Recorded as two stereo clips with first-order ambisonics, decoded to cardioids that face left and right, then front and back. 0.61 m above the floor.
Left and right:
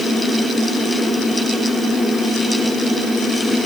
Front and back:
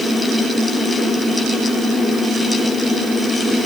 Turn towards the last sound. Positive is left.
No sound to turn to.